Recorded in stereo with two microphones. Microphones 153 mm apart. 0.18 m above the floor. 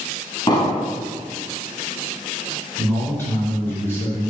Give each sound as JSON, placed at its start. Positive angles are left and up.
{"t": 0.5, "sound": "an explosion", "side_deg": 35, "distance_m": 1.2}
{"t": 2.8, "sound": "a man speaking", "side_deg": 15, "distance_m": 1.5}